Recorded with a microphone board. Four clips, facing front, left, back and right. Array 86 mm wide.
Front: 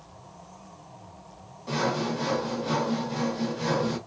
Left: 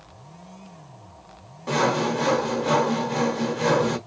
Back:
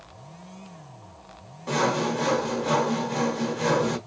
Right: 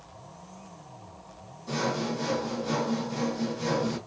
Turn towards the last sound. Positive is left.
turn(degrees=110)